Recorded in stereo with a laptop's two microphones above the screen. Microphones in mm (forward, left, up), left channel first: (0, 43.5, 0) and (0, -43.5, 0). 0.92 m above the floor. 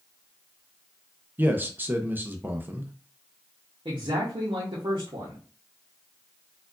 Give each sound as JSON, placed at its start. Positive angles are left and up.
{"t": 1.4, "sound": "a man speaking", "side_deg": -20, "distance_m": 0.6}
{"t": 3.9, "sound": "a man speaking", "side_deg": -70, "distance_m": 1.0}